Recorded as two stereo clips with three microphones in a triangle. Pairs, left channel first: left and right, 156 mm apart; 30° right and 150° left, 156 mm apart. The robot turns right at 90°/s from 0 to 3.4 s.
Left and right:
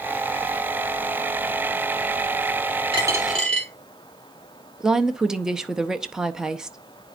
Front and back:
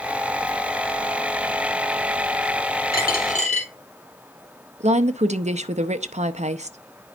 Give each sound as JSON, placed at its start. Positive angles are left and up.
{"t": 2.9, "sound": "a dropped coin", "azimuth_deg": -35, "distance_m": 2.5}
{"t": 4.8, "sound": "a woman speaking", "azimuth_deg": -175, "distance_m": 0.6}